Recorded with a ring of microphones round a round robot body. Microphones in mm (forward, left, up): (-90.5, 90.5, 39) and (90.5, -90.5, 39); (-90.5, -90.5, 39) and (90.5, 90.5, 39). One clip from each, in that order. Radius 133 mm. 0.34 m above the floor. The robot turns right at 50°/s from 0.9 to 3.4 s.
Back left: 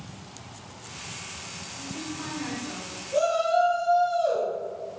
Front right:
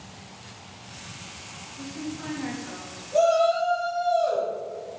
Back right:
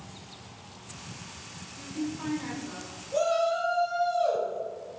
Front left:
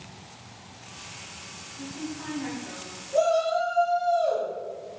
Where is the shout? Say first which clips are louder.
Front right 3 dB, front left 3 dB; 135° right, 1.3 m; by 4.5 s 120° right, 1.3 m.